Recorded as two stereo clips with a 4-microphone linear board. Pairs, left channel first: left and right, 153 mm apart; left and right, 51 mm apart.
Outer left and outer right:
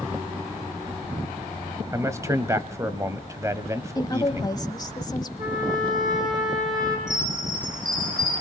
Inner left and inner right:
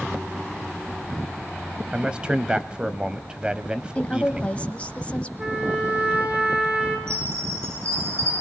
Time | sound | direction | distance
1.9 | a man speaking | 20° right (ahead or behind) | 1.0 m
4.0 | a woman speaking | 25° left (ahead or behind) | 1.2 m
5.4 | a trumpet | 30° right (ahead or behind) | 4 m
7.1 | a chime | 60° right (ahead or behind) | 10 m